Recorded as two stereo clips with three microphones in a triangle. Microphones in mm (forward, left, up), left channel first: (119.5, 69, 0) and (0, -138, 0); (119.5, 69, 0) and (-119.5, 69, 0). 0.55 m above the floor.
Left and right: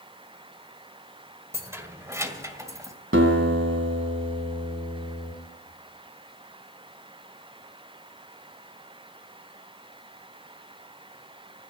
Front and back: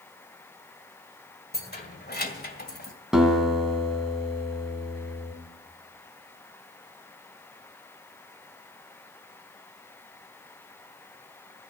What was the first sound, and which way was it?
Keys jangling, 40° right.